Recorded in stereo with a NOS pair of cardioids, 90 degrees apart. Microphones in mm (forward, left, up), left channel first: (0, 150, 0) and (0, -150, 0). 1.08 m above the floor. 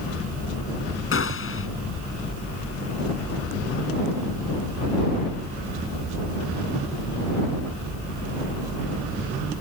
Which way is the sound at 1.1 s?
45° left.